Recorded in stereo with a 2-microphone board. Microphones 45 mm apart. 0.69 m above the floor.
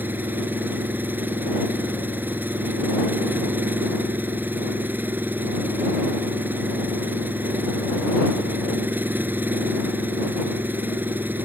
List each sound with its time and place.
0.0 s an engine running: 45° right (ahead or behind)